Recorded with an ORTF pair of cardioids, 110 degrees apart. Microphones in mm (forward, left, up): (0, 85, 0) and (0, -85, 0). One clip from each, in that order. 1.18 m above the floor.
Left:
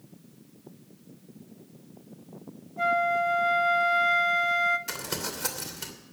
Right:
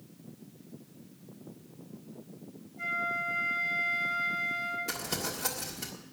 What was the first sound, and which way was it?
A flute, 55° left.